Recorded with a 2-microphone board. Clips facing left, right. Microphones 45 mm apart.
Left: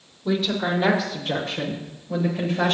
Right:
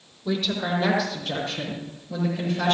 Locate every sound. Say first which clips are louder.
0.2 s a woman speaking: left 3 dB; 15° left (ahead or behind), 5.5 m; by 2.7 s 35° left (ahead or behind), 8.5 m